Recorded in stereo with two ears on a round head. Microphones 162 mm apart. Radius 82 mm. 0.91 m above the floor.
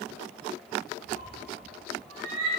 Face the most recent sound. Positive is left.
turn(degrees=-70)  # may be behind; listen again after turning